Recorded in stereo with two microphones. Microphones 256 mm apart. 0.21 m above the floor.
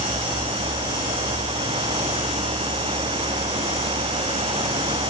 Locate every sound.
Only background noise.